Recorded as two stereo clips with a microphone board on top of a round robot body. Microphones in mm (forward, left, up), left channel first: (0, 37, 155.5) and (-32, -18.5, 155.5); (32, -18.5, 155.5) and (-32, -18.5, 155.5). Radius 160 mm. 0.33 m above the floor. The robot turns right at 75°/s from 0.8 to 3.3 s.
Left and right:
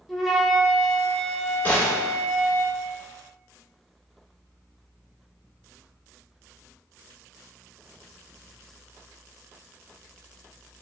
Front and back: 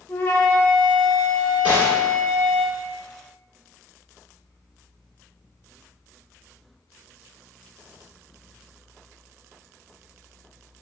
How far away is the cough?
No cough in this recording.